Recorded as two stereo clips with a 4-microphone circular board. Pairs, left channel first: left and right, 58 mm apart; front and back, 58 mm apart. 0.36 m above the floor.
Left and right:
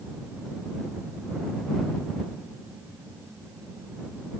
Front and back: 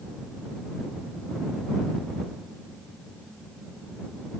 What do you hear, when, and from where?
Only background noise.